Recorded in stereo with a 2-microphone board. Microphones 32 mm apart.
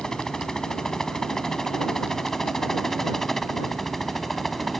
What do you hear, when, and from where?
0.0 s a helicopter: 20° left (ahead or behind); by 4.8 s 5° left (ahead or behind)